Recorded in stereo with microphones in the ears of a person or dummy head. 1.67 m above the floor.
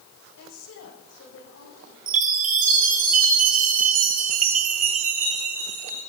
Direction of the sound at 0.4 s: 75° left (ahead or behind).